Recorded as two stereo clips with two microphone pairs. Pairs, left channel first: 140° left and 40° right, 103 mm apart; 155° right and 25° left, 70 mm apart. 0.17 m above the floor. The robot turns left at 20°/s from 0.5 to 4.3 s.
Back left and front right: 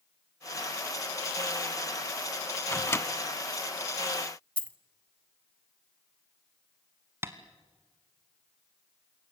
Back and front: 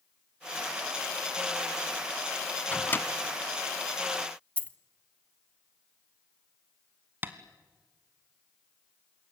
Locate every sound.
2.7 s a microwave: straight behind, 0.9 m; by 3.1 s 175° left, 0.9 m
4.6 s a dropped coin: 170° right, 0.6 m
7.2 s tapping: straight ahead, 1.5 m